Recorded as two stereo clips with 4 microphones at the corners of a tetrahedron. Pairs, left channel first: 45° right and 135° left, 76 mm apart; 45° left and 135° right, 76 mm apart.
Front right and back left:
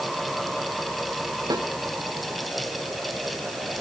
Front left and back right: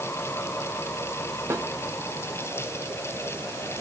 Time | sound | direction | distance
1.5 | a snare drum | 170° left | 2 m